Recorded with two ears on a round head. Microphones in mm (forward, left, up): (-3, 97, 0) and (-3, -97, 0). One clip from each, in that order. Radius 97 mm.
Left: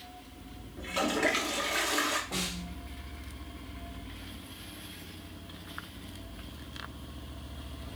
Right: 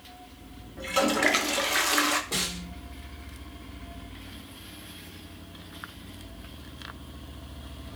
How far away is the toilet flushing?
About 0.9 m.